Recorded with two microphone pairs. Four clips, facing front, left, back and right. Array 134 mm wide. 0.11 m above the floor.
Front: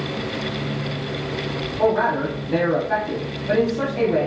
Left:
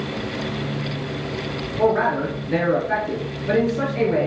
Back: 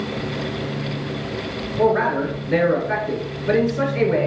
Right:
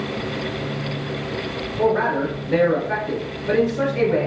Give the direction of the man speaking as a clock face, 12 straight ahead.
6 o'clock.